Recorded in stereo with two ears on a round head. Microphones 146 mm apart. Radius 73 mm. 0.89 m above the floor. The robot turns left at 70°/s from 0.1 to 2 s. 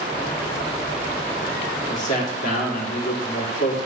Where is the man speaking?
40° left (ahead or behind), 2.0 m; by 3.8 s 50° left (ahead or behind), 2.0 m.